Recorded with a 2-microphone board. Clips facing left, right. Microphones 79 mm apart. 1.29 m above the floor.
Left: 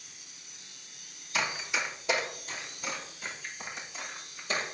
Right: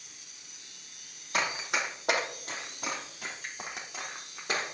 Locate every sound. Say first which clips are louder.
1.3 s running footsteps: right 1 dB; 60° right (ahead or behind), 3 m; by 4.6 s 65° right (ahead or behind), 4.5 m